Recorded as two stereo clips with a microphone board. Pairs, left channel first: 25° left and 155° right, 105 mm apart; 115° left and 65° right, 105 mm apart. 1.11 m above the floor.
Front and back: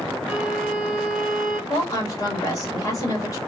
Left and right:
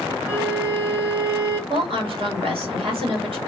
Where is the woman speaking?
35° right, 1.4 m.